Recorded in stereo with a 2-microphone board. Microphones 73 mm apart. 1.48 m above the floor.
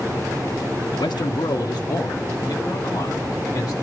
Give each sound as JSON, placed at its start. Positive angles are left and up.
{"t": 0.9, "sound": "a man speaking", "side_deg": 70, "distance_m": 1.1}